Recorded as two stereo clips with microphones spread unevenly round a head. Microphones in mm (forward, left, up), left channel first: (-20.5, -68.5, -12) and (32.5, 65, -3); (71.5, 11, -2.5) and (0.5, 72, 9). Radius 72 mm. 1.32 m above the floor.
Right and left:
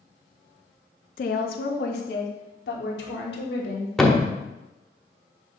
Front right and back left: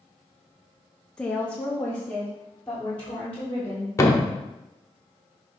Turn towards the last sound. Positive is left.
turn(degrees=-20)